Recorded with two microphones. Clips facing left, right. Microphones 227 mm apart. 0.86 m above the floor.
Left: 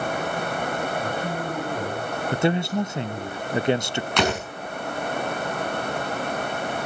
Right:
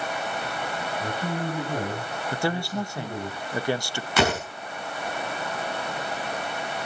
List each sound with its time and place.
1.0 s a man speaking: 15° right (ahead or behind), 7 m
2.3 s a man speaking: 20° left (ahead or behind), 0.5 m
4.2 s a door slam: 5° right (ahead or behind), 6.5 m